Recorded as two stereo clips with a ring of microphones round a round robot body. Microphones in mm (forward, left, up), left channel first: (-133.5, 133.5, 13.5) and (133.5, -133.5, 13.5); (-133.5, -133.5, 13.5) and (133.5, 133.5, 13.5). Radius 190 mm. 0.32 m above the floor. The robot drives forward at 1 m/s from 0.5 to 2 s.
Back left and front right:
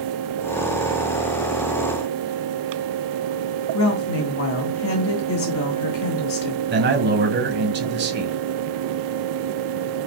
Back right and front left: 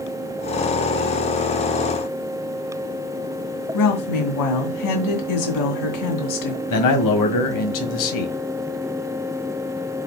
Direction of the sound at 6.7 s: 105° right.